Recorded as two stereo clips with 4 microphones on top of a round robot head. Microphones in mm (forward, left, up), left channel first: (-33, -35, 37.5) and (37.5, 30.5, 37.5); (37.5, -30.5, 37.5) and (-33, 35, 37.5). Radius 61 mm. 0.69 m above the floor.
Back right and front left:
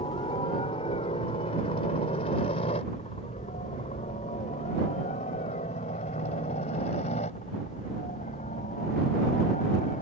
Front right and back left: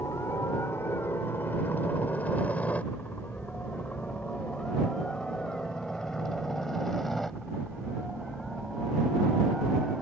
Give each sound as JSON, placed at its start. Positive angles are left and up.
{"t": 0.0, "sound": "a helicopter", "azimuth_deg": -105}